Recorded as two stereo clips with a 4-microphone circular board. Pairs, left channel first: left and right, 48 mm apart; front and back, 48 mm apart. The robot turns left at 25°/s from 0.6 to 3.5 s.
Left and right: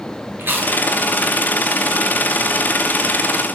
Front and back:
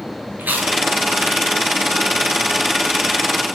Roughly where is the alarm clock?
I don't hear an alarm clock.